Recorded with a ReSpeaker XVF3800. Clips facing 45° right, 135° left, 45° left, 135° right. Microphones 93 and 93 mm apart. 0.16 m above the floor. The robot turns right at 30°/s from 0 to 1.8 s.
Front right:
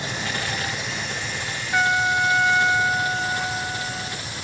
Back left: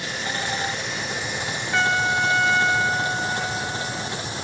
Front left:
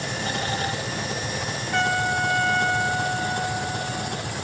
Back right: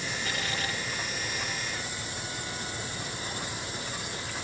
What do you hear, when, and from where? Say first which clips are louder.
0.0 s an engine running: even, front left 6 dB; 20° left; by 4.5 s 70° left
1.7 s a trumpet: front right 1 dB, front left 15 dB; 35° left; by 4.2 s 40° left